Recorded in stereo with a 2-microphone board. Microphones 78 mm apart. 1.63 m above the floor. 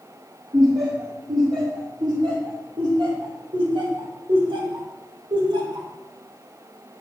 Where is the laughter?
50° right (ahead or behind), 3 m; by 5.9 s 70° right (ahead or behind), 2.5 m.